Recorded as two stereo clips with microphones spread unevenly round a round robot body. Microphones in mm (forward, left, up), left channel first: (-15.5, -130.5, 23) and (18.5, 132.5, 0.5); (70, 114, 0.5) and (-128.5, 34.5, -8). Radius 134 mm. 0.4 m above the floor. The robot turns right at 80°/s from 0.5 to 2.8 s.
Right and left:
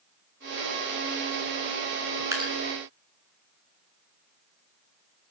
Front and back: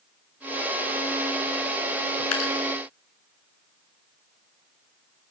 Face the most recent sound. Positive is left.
turn(degrees=45)